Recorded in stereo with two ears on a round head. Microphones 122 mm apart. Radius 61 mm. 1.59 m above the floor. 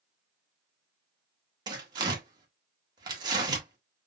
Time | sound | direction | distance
1.7 | tearing paper | 30° right (ahead or behind) | 1.3 m